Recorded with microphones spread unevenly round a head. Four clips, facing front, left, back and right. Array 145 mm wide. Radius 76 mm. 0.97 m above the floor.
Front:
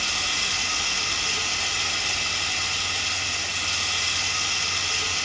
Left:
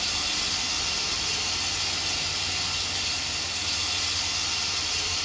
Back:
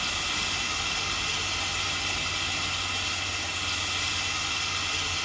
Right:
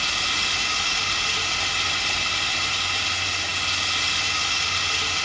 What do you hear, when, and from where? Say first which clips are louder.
0.0 s running water: right 6 dB, front 2 dB; 50° right, 0.7 m